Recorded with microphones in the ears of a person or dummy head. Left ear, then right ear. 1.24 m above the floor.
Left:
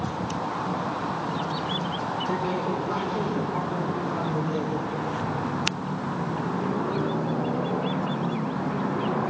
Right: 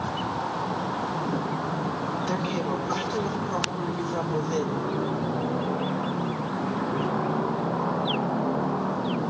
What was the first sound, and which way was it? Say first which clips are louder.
A woman speaking: left 2 dB; 35° right (ahead or behind).